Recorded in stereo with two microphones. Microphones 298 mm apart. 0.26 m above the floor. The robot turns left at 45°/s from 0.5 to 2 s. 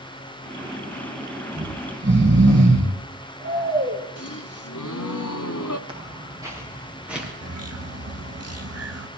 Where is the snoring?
15° right (ahead or behind), 3.5 m; by 4.0 s 35° right (ahead or behind), 3.5 m.